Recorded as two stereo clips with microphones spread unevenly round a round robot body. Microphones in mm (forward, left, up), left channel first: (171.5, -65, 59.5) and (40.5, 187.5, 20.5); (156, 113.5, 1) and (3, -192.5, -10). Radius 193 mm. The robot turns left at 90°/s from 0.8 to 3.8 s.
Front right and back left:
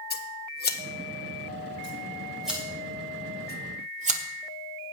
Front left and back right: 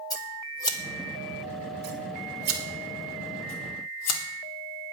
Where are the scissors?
15° right, 1.5 m; by 4.2 s 75° left, 1.5 m.